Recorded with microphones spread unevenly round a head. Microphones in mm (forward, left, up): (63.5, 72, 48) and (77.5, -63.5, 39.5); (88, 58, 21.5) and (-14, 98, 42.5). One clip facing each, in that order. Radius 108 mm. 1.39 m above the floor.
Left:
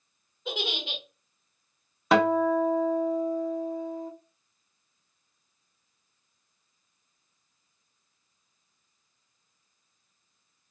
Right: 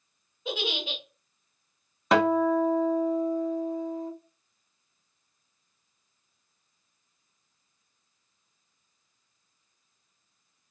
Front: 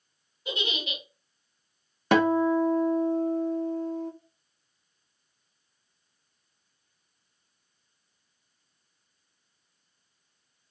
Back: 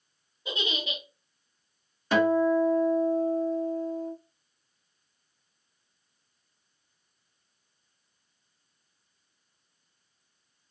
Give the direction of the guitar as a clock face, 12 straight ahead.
12 o'clock.